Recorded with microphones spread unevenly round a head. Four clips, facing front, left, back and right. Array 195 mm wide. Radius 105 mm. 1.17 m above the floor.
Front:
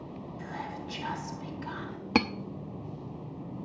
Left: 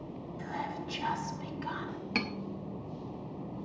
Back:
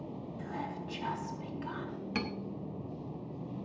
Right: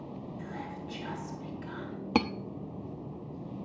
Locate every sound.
0.4 s whispering: 80° left, 2.5 m
2.1 s cutlery clinking: 45° right, 0.9 m